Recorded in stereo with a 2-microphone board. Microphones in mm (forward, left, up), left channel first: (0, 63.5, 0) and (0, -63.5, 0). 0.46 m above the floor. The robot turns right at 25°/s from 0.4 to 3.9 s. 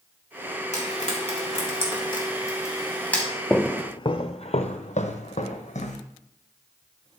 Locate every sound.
0.7 s frying: 65° left (ahead or behind), 3.5 m; by 3.2 s 10° left (ahead or behind), 3.5 m
3.5 s footsteps: 5° left (ahead or behind), 0.6 m; by 6.0 s 70° left (ahead or behind), 1.7 m